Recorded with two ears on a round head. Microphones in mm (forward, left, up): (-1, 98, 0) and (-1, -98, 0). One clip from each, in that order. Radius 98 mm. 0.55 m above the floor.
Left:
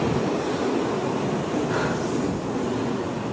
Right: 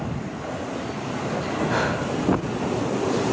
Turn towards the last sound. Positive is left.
turn(degrees=-25)  # may be behind; listen again after turning